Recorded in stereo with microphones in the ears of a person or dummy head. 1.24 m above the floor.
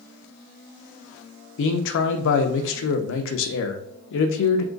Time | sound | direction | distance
1.6 | a man speaking | 70° left (ahead or behind) | 0.6 m